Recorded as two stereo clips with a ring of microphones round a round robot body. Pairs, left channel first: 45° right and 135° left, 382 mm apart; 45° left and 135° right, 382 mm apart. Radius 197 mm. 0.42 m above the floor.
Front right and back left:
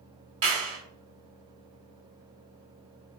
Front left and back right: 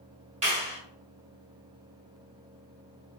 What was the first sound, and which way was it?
A clap, 150° left.